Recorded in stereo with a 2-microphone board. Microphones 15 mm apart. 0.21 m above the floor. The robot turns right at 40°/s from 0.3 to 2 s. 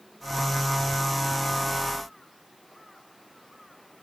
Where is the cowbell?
I don't hear a cowbell.